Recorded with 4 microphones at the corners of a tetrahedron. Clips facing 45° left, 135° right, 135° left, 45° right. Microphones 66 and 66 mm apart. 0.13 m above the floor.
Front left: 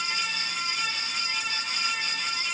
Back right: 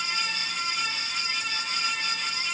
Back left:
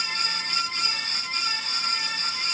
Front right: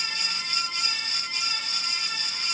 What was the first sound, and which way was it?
Only background noise.